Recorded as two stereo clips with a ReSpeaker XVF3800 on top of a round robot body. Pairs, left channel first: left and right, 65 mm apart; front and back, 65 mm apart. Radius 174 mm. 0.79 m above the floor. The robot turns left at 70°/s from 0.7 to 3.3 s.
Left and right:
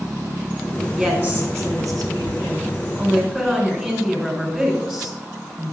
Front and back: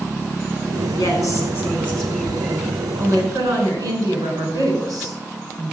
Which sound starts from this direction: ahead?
A woman speaking, at 0.9 s.